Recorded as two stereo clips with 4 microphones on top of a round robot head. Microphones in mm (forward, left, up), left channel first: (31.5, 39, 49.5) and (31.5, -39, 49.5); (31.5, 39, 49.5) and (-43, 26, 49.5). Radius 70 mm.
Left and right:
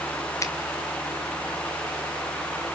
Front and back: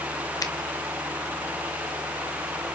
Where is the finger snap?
45° left, 2 m.